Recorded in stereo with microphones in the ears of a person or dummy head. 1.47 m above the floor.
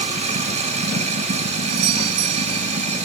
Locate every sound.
0.0 s running water: 30° right (ahead or behind)
1.7 s a doorbell: 75° right (ahead or behind)